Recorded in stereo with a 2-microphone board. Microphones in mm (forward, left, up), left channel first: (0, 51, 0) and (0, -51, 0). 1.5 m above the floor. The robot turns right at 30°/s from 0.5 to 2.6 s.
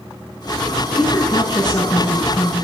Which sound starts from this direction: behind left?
A woman speaking, at 0.9 s.